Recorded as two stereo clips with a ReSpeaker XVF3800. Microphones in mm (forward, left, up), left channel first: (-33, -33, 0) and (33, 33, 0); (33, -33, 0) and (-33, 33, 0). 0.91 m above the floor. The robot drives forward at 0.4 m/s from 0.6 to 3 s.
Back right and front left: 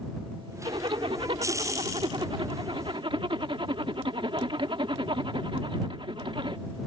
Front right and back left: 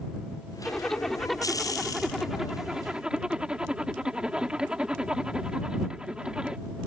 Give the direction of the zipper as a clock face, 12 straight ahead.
11 o'clock.